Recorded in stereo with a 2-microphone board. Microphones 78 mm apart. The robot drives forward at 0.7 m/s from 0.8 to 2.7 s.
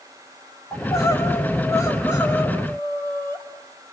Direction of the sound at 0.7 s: 45° left (ahead or behind).